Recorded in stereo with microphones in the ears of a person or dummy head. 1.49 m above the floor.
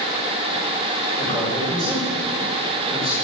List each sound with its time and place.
1.2 s a man speaking: 20° left (ahead or behind), 5.5 m